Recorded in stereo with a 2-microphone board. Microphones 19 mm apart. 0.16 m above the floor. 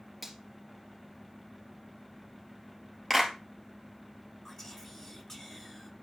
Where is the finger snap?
5° left (ahead or behind), 3 m.